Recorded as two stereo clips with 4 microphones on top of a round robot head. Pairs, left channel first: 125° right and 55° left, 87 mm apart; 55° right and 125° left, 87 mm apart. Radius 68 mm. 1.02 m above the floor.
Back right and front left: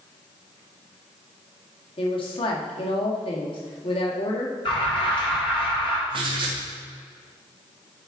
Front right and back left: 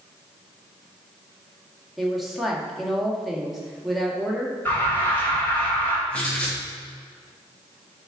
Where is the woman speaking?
145° right, 1.9 m.